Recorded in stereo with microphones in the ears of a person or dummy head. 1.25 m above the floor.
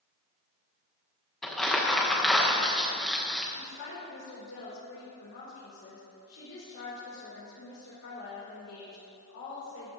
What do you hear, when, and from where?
1.4 s crumpling: 5° left (ahead or behind), 1.2 m
3.5 s a woman speaking: 80° left, 4 m